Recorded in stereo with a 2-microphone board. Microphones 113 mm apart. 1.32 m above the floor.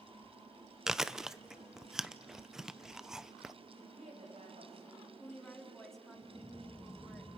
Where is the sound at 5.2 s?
5° left (ahead or behind), 3.5 m.